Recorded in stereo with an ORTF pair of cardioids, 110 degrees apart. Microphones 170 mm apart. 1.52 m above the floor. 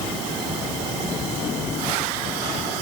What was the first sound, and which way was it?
Only background noise.